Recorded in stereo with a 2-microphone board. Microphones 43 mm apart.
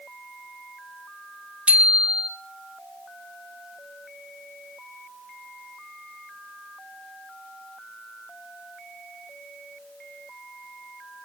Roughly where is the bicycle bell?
Right.